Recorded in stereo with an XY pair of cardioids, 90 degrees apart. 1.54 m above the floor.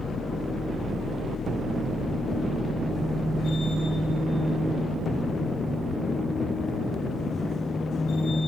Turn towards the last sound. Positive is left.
turn(degrees=65)